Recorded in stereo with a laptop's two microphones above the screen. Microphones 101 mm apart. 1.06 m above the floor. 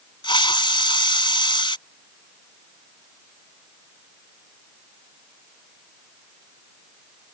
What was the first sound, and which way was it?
A hiss, 50° left (ahead or behind).